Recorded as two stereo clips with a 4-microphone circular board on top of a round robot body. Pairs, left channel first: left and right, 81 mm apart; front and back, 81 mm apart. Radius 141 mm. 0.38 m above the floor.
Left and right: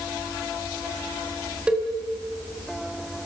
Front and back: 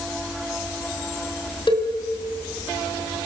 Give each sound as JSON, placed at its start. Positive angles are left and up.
{"t": 1.7, "sound": "a cowbell", "azimuth_deg": -10, "distance_m": 3.0}